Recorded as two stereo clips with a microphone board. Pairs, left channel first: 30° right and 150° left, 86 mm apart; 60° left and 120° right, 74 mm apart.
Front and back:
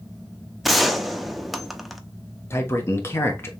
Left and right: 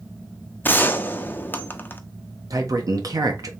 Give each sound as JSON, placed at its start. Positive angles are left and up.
{"t": 0.6, "sound": "a gunshot", "azimuth_deg": 60, "distance_m": 0.5}
{"t": 2.5, "sound": "a man speaking", "azimuth_deg": -90, "distance_m": 1.1}